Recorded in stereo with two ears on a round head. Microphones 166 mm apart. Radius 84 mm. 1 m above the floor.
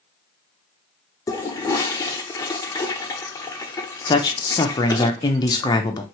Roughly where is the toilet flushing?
Centre.